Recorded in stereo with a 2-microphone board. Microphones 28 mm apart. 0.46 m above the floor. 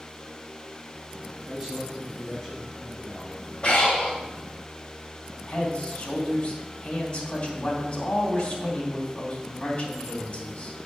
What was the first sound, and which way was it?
A man speaking, 10° left (ahead or behind).